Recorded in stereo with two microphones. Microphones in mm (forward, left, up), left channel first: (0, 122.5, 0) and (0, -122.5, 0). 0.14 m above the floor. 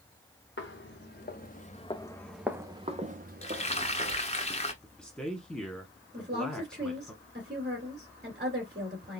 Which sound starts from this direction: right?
A woman speaking, at 6.1 s.